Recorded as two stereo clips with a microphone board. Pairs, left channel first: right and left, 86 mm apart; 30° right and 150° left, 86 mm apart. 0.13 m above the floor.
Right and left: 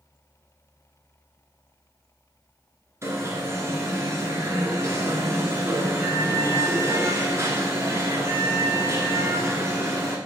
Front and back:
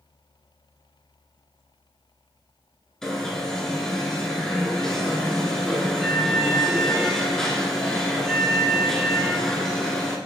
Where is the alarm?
50° left, 1.2 m.